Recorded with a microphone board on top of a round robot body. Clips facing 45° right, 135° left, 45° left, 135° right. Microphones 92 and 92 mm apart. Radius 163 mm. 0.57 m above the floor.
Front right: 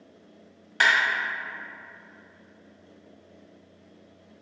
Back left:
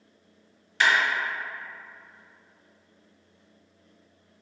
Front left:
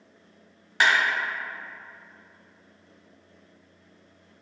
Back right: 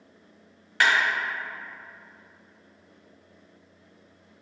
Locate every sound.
0.8 s a clap: 20° right, 1.2 m